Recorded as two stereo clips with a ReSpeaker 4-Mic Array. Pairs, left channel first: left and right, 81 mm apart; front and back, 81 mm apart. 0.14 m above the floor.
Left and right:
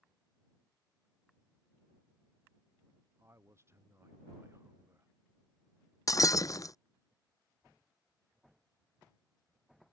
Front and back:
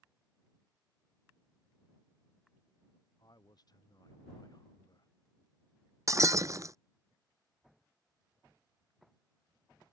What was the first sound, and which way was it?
A man speaking, 35° right.